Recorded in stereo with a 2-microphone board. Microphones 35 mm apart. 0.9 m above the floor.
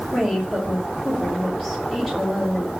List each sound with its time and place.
0.1 s a woman speaking: centre (ahead or behind), 2 m